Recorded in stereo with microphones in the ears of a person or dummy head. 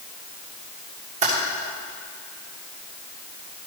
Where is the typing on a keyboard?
35° right (ahead or behind), 1.8 m.